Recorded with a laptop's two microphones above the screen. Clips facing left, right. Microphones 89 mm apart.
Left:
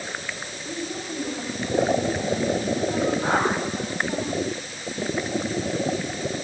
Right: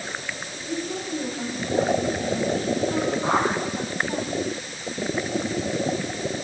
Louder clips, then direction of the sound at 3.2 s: Even; 60° left (ahead or behind).